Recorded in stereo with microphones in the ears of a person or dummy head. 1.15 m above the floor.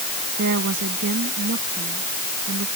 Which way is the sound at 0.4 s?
60° right (ahead or behind).